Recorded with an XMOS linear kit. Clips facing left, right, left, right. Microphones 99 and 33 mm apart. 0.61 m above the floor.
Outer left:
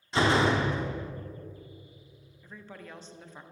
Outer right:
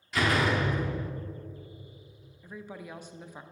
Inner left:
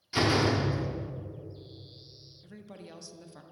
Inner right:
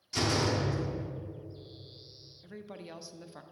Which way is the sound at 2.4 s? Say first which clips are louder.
Outer right 4 dB, inner right 3 dB; 10° right (ahead or behind).